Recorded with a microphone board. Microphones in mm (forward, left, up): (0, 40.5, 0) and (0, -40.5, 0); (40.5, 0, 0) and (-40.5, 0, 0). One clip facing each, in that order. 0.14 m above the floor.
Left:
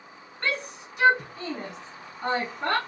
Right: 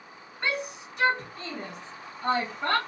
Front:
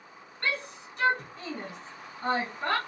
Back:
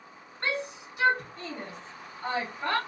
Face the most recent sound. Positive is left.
turn(degrees=45)